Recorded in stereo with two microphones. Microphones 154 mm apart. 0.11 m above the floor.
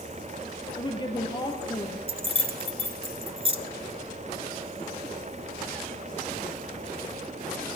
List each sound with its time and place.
0.8 s a woman speaking: 30° left (ahead or behind), 1.9 m
2.1 s keys jangling: 35° right (ahead or behind), 1.0 m